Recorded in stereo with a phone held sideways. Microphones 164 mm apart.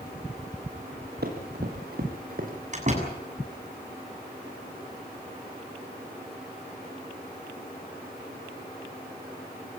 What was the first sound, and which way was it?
Running footsteps, 75° right (ahead or behind).